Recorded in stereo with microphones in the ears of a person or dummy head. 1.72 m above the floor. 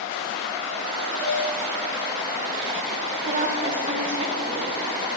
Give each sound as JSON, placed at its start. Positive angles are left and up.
{"t": 1.2, "sound": "dishes clattering", "side_deg": -55, "distance_m": 2.5}
{"t": 3.2, "sound": "a woman speaking", "side_deg": -35, "distance_m": 0.9}